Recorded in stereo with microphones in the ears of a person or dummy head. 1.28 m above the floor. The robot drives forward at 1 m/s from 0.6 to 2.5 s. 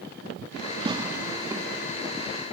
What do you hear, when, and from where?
0.8 s tearing paper: 30° right (ahead or behind), 1.8 m; by 1.6 s 20° right (ahead or behind), 2.5 m